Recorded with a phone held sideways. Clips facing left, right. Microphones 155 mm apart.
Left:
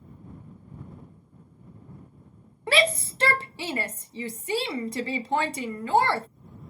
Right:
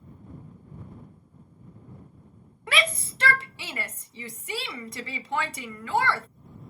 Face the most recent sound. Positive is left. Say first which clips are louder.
# left 5 dB
turn(degrees=30)  # may be behind; listen again after turning